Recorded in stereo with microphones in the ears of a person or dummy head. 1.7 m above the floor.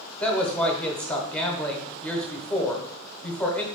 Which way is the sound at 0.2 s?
15° left (ahead or behind).